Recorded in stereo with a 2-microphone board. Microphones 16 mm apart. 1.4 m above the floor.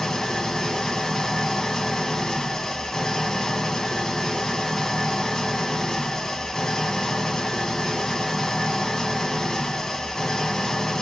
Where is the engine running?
45° left (ahead or behind), 0.8 m.